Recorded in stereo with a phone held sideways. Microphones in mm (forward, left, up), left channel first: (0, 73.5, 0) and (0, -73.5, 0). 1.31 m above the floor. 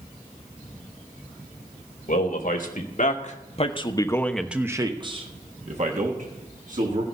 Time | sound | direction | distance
2.1 | a man speaking | 75° left (ahead or behind) | 2.5 m